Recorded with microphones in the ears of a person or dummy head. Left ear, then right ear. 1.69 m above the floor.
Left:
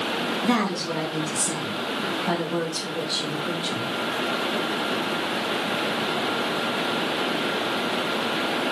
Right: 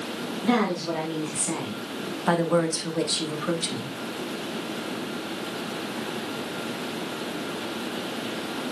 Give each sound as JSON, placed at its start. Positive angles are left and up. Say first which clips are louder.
{"t": 0.4, "sound": "a woman speaking", "louder": "right 4 dB", "side_deg": 0, "distance_m": 2.0}